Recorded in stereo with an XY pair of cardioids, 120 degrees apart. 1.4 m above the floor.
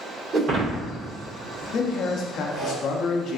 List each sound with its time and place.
0.3 s breaking glass: 60° right, 1.6 m
1.7 s a man speaking: 60° left, 0.7 m